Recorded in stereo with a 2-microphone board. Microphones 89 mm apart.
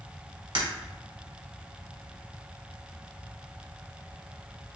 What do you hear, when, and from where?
0.6 s breaking glass: 65° right (ahead or behind), 1.1 m